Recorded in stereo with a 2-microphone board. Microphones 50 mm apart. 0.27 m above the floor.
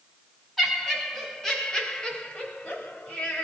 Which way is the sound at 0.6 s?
Centre (ahead or behind).